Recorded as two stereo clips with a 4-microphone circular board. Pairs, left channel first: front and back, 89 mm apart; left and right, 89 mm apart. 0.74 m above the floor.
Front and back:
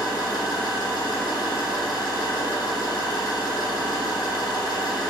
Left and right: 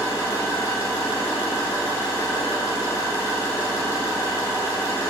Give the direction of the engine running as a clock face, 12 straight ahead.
11 o'clock.